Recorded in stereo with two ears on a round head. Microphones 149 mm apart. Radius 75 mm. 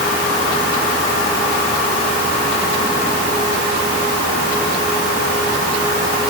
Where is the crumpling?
No crumpling in this recording.